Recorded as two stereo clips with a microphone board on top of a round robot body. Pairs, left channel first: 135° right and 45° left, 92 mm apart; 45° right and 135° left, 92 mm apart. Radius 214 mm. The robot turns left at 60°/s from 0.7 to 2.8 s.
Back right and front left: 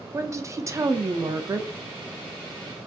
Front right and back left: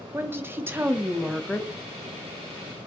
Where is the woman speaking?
80° left, 0.7 m; by 1.7 s 20° left, 0.7 m.